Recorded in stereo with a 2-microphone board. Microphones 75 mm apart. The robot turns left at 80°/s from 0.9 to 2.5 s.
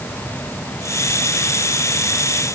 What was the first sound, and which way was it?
Only background noise.